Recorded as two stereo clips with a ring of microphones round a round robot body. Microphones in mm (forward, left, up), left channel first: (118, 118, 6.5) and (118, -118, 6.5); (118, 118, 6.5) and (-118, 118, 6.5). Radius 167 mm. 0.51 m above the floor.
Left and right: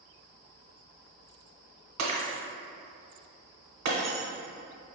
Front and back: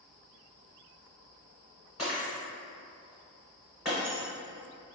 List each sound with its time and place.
2.0 s breaking glass: 90° right, 0.9 m